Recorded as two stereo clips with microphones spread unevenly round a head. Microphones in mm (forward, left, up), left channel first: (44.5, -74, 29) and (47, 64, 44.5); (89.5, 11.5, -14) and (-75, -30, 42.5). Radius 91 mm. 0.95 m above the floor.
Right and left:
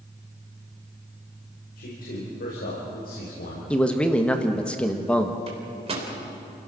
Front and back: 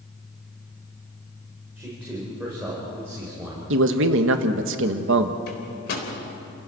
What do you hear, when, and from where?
1.8 s a man speaking: 85° right, 4.5 m
3.7 s a man speaking: 165° right, 1.4 m
5.5 s a microwave: 45° left, 4 m